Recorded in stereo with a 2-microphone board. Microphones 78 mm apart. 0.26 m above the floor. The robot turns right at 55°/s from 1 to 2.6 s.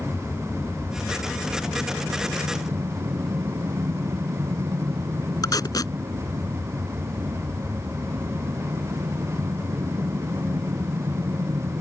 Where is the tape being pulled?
60° left (ahead or behind).